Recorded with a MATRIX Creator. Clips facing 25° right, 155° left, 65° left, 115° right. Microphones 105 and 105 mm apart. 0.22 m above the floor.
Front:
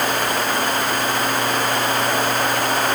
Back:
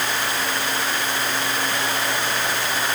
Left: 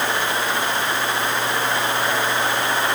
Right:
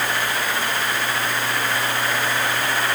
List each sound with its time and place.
Only background noise.